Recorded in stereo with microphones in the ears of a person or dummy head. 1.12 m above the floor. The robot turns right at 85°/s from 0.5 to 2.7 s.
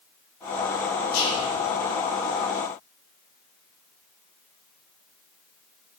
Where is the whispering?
95° left, 1.8 m; by 1.5 s 130° left, 1.8 m.